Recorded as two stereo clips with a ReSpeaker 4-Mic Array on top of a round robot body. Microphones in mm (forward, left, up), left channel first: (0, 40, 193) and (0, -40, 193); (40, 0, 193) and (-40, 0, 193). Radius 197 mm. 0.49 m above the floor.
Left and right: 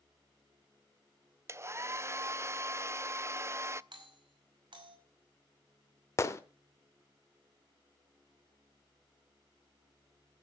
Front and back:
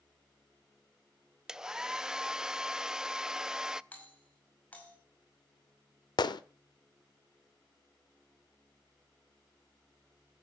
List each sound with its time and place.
1.5 s a hair dryer: 105° right, 0.7 m
3.9 s a doorbell: 70° right, 5.5 m
6.2 s a gunshot: 35° left, 0.6 m